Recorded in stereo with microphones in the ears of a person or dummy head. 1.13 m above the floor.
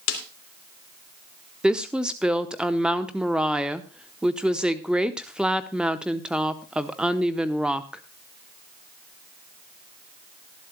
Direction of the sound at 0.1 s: 85° left.